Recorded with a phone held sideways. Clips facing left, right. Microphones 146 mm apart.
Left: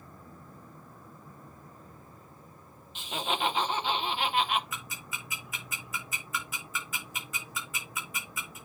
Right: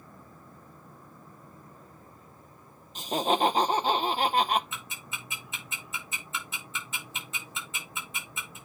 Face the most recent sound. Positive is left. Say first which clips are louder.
# even
turn(degrees=-25)  # may be behind; listen again after turning